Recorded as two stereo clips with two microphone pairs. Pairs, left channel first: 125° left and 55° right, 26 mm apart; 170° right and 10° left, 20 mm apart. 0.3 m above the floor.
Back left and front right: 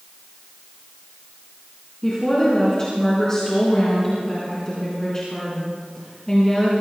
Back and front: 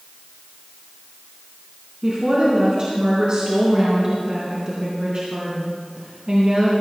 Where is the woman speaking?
55° left, 3.5 m.